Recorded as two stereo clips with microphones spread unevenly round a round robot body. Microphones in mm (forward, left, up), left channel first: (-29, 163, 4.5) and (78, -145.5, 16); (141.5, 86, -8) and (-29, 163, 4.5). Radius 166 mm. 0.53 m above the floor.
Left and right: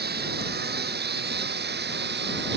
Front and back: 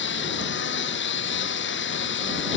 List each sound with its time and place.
0.0 s a lawn mower: 10° right